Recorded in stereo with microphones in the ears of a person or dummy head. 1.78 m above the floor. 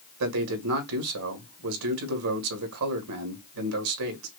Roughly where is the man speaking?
Right.